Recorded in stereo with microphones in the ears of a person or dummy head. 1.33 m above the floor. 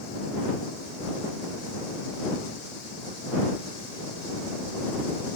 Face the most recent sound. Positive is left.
No sound to turn to.